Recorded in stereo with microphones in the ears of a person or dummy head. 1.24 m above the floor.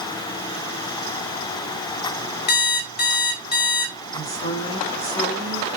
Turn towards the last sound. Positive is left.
turn(degrees=35)  # may be behind; listen again after turning